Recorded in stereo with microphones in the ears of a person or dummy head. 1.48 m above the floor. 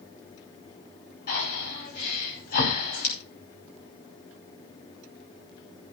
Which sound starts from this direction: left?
Breathing, at 1.3 s.